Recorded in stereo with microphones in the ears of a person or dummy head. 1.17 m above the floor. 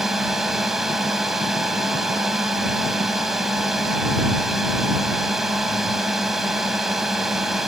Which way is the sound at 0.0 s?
5° right (ahead or behind).